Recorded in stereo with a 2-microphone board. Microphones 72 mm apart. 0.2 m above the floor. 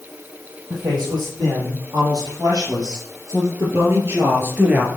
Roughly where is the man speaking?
Right.